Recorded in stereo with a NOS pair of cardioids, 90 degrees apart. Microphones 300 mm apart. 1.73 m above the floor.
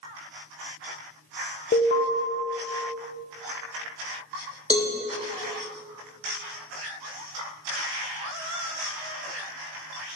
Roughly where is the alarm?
Ahead left.